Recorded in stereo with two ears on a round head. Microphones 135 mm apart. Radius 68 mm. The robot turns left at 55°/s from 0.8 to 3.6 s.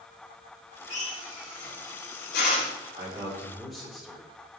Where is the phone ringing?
I don't hear a phone ringing.